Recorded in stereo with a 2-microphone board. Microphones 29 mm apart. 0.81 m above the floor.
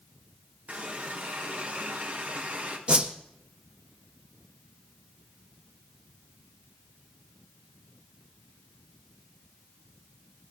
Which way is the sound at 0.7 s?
65° right (ahead or behind).